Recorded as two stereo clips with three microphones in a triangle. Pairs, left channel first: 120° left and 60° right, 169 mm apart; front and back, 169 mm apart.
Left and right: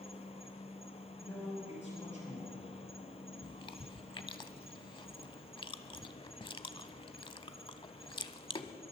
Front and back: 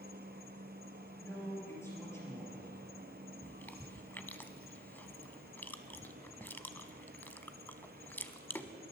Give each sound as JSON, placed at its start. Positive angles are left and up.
{"t": 0.0, "sound": "an insect", "azimuth_deg": 170, "distance_m": 0.8}
{"t": 1.2, "sound": "a man speaking", "azimuth_deg": 75, "distance_m": 5.5}
{"t": 3.4, "sound": "chewing", "azimuth_deg": 70, "distance_m": 0.6}